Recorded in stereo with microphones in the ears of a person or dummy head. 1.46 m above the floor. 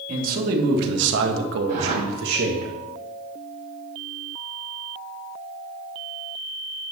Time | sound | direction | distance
0.1 | a man speaking | 55° right (ahead or behind) | 2.5 m
1.7 | a whoosh | 55° right (ahead or behind) | 3.5 m